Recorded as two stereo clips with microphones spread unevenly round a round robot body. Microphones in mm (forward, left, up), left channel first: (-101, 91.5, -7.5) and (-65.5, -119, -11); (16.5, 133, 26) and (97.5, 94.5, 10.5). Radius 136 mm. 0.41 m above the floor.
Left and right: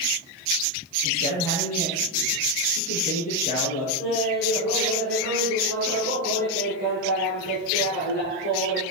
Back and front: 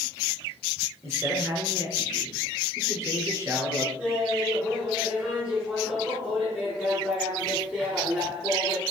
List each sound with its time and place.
1.0 s a man speaking: 35° left, 7.5 m
4.0 s laughter: 55° left, 7 m